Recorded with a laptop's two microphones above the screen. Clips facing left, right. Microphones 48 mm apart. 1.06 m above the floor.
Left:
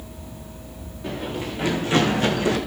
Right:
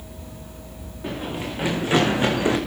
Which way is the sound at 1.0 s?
15° right (ahead or behind).